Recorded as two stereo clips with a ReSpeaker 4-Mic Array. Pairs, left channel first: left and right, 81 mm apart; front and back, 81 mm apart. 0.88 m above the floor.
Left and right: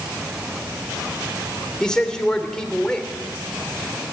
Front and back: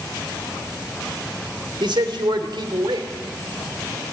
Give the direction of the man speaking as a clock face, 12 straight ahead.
6 o'clock.